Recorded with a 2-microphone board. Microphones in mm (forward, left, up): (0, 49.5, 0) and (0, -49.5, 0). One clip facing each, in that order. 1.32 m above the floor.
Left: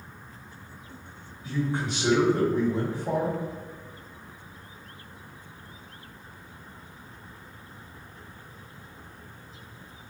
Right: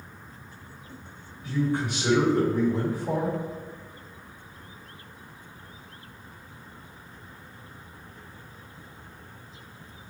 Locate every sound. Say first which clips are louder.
1.4 s a man speaking: right 2 dB; 25° left (ahead or behind), 1.6 m